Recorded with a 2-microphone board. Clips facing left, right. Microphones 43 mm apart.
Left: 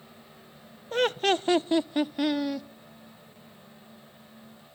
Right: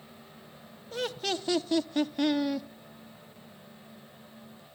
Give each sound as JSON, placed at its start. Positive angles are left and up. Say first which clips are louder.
{"t": 0.9, "sound": "laughter", "louder": "left 8 dB", "side_deg": 45, "distance_m": 0.6}